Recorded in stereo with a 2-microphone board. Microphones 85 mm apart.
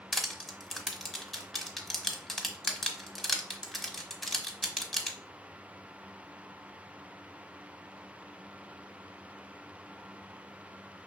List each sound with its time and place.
0.1 s crushing: centre (ahead or behind), 0.8 m